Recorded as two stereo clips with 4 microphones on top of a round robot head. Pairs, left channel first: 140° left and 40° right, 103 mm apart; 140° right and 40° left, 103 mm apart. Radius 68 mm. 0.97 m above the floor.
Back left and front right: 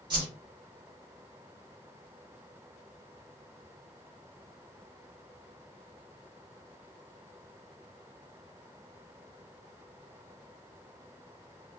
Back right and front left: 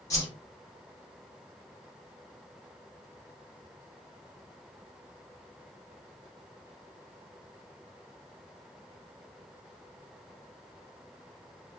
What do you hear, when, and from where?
0.1 s a whoosh: 85° right, 1.2 m